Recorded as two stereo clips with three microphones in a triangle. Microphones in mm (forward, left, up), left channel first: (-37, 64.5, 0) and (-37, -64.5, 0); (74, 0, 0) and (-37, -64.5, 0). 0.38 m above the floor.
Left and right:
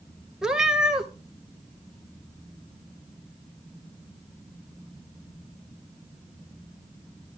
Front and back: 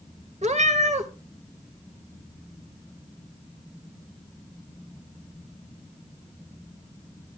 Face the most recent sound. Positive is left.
turn(degrees=-175)